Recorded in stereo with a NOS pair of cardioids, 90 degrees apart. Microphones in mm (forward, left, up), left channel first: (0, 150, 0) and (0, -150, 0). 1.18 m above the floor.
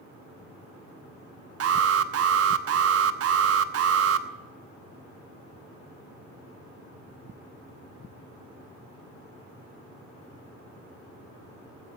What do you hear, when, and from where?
1.6 s an alarm: 55° right, 1.1 m